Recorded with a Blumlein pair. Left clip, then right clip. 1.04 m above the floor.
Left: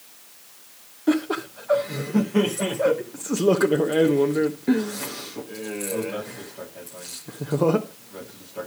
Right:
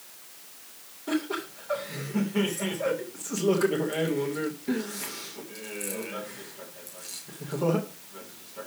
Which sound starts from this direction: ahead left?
Laughter, at 1.1 s.